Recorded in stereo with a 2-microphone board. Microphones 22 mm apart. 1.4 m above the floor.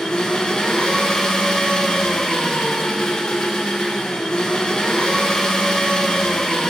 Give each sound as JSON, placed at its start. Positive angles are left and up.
{"t": 0.0, "sound": "an engine running", "side_deg": 35, "distance_m": 0.8}